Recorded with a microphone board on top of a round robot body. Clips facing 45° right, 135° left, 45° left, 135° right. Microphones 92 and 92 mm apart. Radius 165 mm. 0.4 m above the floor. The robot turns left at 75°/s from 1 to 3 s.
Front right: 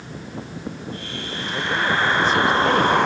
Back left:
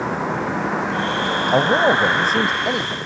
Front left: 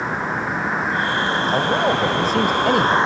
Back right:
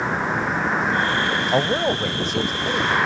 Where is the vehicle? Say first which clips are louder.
Back left 13 dB, back right 1 dB; 135° left; by 3.1 s 15° right.